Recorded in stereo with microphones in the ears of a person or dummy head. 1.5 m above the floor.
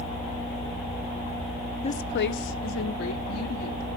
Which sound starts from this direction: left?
A woman speaking, at 1.8 s.